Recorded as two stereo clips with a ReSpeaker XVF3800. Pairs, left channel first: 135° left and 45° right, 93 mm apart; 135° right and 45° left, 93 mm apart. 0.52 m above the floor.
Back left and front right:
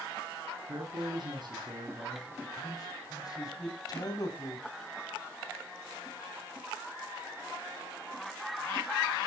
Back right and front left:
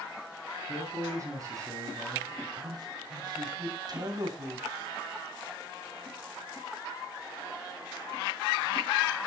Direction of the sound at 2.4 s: 90° left.